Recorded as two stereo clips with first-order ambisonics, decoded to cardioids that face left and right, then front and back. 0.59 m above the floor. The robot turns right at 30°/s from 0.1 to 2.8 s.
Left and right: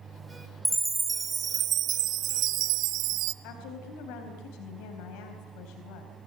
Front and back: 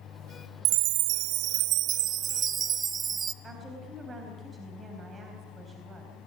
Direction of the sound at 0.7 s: 175° right.